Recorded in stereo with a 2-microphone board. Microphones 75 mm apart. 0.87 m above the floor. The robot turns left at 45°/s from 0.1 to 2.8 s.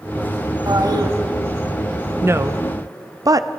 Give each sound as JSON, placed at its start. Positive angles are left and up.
{"t": 0.7, "sound": "a toilet flushing", "side_deg": -50, "distance_m": 1.2}
{"t": 2.2, "sound": "a woman speaking", "side_deg": -30, "distance_m": 0.6}